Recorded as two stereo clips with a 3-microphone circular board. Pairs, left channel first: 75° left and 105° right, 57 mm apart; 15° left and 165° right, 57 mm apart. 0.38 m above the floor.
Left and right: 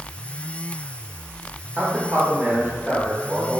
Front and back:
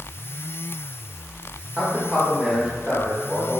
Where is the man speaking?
130° right, 0.9 m.